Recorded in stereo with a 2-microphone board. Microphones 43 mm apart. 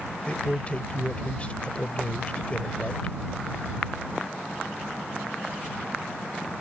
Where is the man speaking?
30° left (ahead or behind).